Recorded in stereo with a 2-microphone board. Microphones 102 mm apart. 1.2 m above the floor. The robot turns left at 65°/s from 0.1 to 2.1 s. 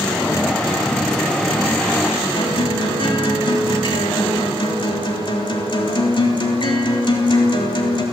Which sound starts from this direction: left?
A guitar, at 2.4 s.